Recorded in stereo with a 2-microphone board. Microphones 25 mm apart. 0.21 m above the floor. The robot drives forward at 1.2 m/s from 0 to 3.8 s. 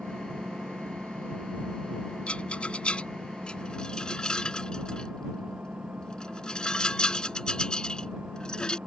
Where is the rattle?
50° left (ahead or behind); by 8.8 s 35° left (ahead or behind).